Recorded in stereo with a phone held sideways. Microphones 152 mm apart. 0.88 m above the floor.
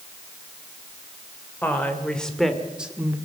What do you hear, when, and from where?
1.6 s a woman speaking: 10° left (ahead or behind), 3 m; by 3.2 s 15° right (ahead or behind), 1.9 m